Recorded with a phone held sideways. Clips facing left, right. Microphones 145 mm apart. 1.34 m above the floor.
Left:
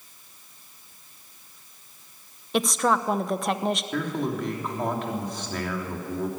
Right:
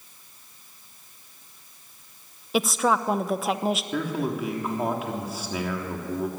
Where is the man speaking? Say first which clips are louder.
Even; 10° right (ahead or behind), 3 m.